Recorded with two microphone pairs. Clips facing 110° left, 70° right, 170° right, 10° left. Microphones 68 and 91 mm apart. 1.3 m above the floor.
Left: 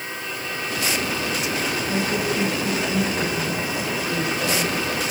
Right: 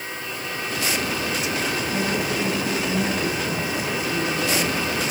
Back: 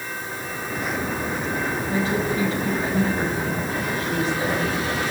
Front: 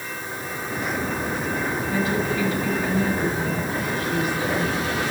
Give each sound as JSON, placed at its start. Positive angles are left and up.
{"t": 1.9, "sound": "a woman speaking", "azimuth_deg": 130, "distance_m": 7.5}